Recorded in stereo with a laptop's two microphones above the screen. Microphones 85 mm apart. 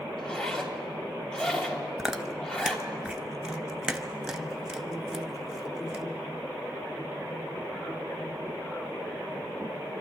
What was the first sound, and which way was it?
A zipper, 10° left (ahead or behind).